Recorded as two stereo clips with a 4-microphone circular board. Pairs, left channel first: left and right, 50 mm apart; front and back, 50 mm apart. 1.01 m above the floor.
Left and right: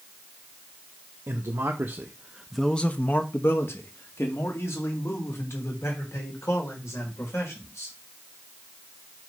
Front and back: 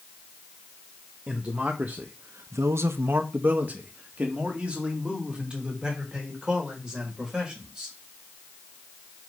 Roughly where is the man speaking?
Right.